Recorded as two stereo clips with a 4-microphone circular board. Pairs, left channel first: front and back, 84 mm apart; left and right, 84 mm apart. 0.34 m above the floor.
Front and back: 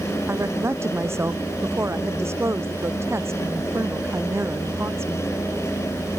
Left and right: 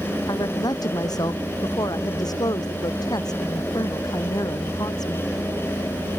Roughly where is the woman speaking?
Behind left.